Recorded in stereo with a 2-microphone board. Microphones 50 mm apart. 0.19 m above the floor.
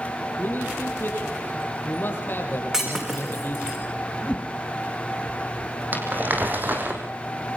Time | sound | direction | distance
0.4 | a man speaking | 45° left (ahead or behind) | 5.5 m
2.7 | breaking glass | 15° right (ahead or behind) | 4.5 m
4.2 | a whoosh | 25° left (ahead or behind) | 0.8 m
5.9 | crumpling | 40° right (ahead or behind) | 3.5 m